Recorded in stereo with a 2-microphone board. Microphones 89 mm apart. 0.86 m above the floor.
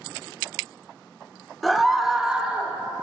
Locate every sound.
1.6 s a scream: centre (ahead or behind), 0.8 m; by 2.8 s 10° right (ahead or behind), 0.7 m